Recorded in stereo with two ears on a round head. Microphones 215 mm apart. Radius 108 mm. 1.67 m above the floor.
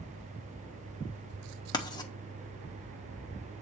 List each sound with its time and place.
1.7 s writing: 15° left (ahead or behind), 1.3 m